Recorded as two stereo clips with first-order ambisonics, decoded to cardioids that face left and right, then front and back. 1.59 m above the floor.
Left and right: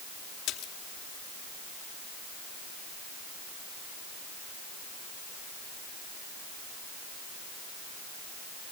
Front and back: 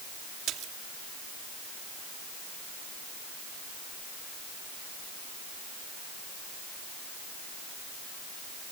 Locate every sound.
0.5 s a splash: 130° left